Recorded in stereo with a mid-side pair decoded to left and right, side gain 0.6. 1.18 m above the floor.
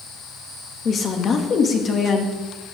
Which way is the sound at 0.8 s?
40° left.